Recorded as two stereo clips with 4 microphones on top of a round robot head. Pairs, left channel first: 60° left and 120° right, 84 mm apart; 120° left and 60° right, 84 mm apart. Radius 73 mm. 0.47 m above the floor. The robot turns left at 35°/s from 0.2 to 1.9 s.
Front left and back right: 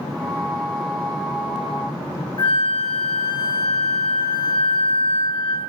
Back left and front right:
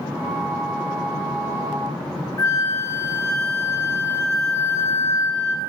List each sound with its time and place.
2.4 s a flute: 75° left, 1.2 m